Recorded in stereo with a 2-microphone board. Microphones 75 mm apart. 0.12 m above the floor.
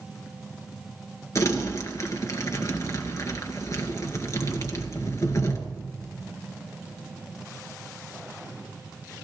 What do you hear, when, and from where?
1.4 s crumpling: 45° left (ahead or behind), 1.9 m